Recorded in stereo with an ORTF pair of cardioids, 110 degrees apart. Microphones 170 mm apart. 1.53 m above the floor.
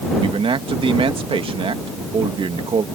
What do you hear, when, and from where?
0.2 s a man speaking: 30° right